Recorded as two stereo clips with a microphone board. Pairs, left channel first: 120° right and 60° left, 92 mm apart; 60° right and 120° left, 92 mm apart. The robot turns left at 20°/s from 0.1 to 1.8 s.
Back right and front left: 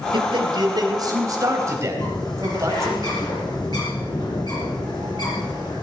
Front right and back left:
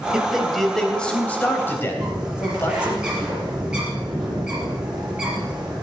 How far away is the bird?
About 6 m.